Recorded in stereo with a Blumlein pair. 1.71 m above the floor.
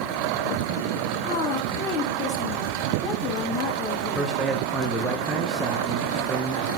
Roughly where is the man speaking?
Ahead.